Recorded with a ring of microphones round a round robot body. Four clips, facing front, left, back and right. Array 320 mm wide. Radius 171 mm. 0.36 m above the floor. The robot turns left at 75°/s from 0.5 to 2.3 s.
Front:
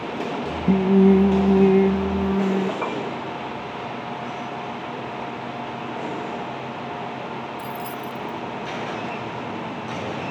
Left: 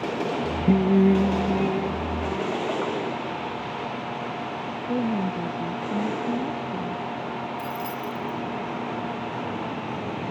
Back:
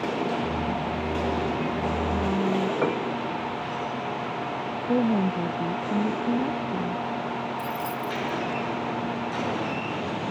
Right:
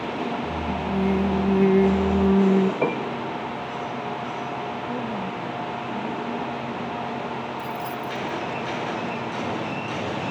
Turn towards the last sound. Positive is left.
turn(degrees=80)